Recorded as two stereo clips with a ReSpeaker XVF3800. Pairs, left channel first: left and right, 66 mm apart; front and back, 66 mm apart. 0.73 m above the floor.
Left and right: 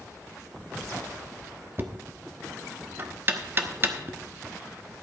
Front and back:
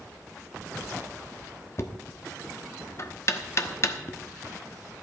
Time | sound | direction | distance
1.8 | knocking | 40° right | 1.0 m